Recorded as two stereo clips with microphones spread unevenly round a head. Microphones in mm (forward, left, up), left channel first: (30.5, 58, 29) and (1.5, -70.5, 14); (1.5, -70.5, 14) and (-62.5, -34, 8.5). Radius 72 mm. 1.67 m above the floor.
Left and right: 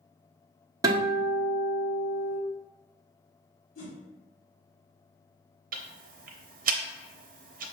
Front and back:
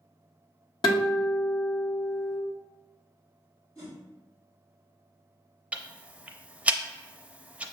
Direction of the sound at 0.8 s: 35° right.